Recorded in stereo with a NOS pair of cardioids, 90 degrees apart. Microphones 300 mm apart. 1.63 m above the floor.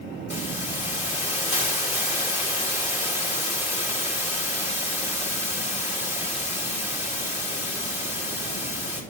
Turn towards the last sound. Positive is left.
turn(degrees=25)